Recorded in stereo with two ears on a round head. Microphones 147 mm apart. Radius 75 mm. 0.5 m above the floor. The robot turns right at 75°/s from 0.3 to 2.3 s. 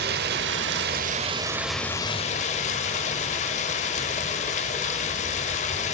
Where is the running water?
110° right, 0.8 m; by 5.9 s 40° left, 0.8 m.